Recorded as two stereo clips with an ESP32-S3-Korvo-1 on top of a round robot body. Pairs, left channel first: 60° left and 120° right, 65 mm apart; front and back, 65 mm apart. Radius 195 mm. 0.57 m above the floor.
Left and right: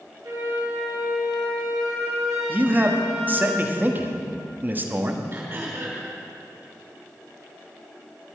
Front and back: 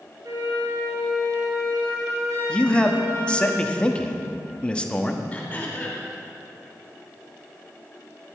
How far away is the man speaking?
About 1.7 m.